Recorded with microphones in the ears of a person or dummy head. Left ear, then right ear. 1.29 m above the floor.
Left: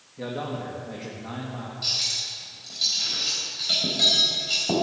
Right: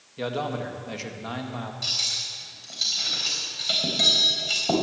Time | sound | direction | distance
0.2 | a man speaking | 80° right | 2.0 m
1.8 | cutlery clinking | 25° right (ahead or behind) | 3.5 m